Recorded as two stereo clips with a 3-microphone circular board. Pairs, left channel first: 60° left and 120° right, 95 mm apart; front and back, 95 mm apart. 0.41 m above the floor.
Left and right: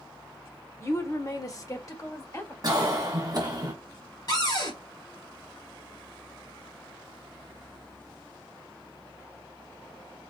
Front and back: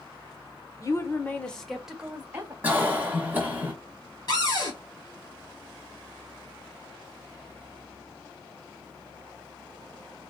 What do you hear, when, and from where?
0.8 s a woman speaking: 25° left, 0.9 m; by 2.5 s 115° left, 1.3 m
2.6 s a cough: 115° right, 1.6 m
4.3 s a cupboard door: 30° left, 1.8 m